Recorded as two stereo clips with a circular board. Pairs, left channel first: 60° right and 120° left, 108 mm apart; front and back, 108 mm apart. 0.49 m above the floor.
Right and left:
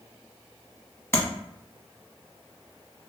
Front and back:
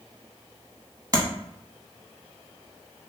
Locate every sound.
1.1 s tapping: 125° right, 0.8 m